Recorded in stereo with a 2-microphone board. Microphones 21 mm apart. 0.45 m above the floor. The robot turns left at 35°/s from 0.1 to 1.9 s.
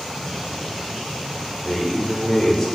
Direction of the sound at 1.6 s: 5° left (ahead or behind).